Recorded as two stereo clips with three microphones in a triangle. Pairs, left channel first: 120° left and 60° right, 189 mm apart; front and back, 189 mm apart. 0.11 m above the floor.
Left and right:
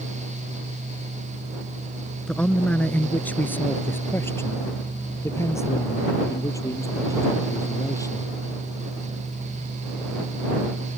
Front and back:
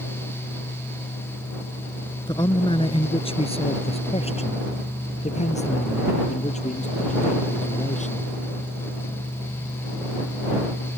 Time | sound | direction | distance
2.3 | a man speaking | 40° left | ?